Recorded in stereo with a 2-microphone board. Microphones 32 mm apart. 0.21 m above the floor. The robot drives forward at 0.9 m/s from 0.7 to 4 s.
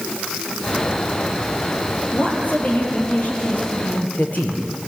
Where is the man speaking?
55° left (ahead or behind), 5 m.